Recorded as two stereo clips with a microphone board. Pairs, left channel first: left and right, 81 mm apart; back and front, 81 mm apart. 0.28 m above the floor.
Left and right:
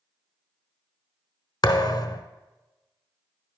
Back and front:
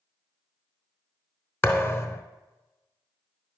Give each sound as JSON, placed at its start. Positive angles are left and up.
{"t": 1.6, "sound": "a thud", "azimuth_deg": 125, "distance_m": 0.8}